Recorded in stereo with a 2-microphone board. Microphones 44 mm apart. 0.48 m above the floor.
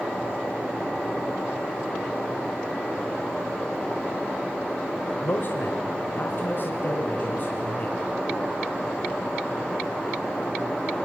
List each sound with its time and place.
5.2 s a man speaking: 50° left (ahead or behind), 1.5 m; by 8.1 s 45° left (ahead or behind), 3 m